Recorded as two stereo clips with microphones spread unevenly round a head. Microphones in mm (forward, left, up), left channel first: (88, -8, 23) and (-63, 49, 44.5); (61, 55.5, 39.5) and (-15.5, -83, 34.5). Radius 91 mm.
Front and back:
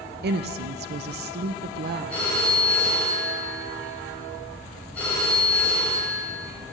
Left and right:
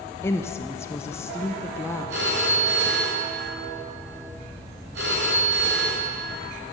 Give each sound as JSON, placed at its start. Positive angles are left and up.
{"t": 0.2, "sound": "a woman speaking", "azimuth_deg": 135, "distance_m": 0.6}
{"t": 2.1, "sound": "a phone ringing", "azimuth_deg": -105, "distance_m": 3.0}